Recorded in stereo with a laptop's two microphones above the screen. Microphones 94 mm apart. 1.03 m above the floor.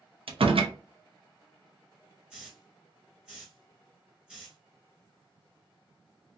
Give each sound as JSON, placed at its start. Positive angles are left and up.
{"t": 0.3, "sound": "a door slam", "side_deg": -70, "distance_m": 0.5}
{"t": 2.3, "sound": "a hiss", "side_deg": -5, "distance_m": 1.0}